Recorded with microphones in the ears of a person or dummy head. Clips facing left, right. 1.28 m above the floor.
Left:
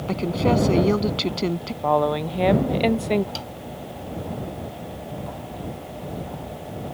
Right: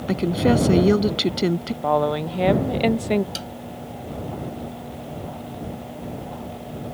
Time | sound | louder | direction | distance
0.1 | a woman speaking | right 2 dB | 15° right (ahead or behind) | ?
1.8 | a woman speaking | left 1 dB | 5° right (ahead or behind) | ?
3.4 | a snare drum | right 1 dB | 20° right (ahead or behind) | ?